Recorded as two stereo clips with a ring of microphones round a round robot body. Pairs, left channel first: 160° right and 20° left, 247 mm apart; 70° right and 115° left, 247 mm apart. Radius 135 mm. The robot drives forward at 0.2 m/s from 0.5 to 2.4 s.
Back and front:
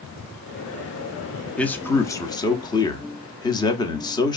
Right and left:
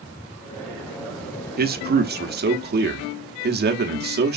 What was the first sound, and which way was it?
A man speaking, 120° left.